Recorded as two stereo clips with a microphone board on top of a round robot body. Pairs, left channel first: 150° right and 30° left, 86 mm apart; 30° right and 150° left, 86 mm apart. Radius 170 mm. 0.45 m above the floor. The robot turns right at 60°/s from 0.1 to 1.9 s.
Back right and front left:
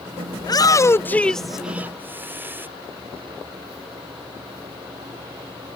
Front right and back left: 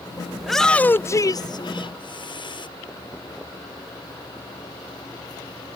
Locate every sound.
0.4 s a shout: 125° right; by 2.7 s 35° right